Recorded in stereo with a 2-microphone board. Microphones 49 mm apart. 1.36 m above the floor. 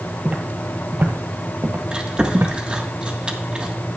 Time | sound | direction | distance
0.2 | footsteps | 25° right (ahead or behind) | 1.7 m
1.9 | chewing | 20° right (ahead or behind) | 1.5 m